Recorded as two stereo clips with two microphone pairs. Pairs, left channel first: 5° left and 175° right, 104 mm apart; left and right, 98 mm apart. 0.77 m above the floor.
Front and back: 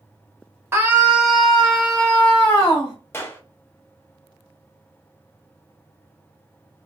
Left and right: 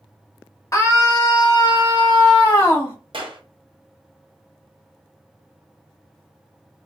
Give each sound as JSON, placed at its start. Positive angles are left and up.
{"t": 0.7, "sound": "a scream", "azimuth_deg": 130, "distance_m": 0.9}
{"t": 3.1, "sound": "a clap", "azimuth_deg": -65, "distance_m": 0.6}